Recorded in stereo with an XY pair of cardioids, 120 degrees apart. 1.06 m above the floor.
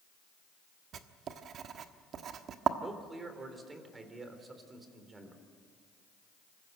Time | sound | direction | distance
0.9 | writing | 55° right | 1.3 m
2.8 | a man speaking | 25° right | 3.5 m